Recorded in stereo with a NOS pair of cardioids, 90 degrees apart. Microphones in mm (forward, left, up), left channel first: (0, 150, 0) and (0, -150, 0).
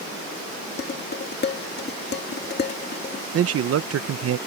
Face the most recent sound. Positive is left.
turn(degrees=-50)